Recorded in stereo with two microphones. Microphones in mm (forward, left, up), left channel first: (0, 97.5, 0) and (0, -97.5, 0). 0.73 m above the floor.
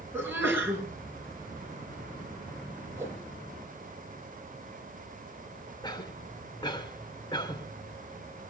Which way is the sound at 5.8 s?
25° left (ahead or behind).